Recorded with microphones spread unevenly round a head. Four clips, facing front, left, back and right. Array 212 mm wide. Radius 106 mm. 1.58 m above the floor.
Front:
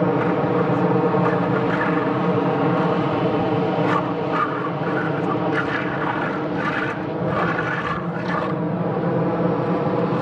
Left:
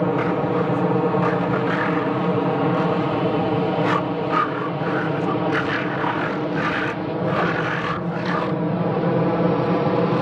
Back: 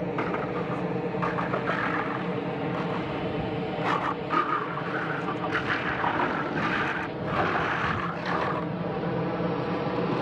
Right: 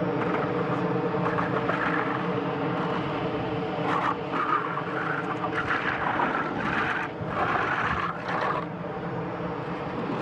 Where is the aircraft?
25° left; by 10.2 s 60° left.